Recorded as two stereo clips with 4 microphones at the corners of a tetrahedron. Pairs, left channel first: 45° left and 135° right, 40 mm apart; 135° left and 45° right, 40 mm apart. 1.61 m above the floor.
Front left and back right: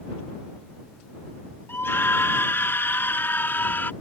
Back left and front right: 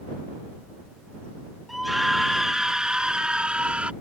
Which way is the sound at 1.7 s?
45° left.